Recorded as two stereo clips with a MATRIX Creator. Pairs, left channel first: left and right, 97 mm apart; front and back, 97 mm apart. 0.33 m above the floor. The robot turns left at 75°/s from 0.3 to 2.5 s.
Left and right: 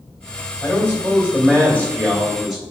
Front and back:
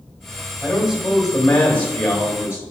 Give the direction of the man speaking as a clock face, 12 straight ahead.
8 o'clock.